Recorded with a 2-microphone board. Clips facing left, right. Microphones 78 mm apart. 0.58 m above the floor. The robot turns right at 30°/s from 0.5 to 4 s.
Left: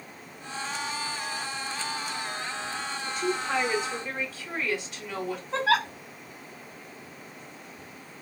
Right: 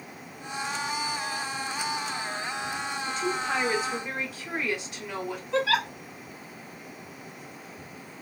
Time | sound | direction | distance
3.1 | a woman speaking | 10° left (ahead or behind) | 2.5 m
5.5 | a giggle | 40° left (ahead or behind) | 1.0 m